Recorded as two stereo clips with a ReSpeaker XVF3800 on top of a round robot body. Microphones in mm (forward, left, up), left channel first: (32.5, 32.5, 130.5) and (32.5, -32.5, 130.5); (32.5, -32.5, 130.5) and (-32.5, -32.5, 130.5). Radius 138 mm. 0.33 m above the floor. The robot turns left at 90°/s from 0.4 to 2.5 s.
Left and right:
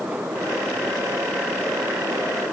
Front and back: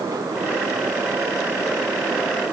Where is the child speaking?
No child speaking in this recording.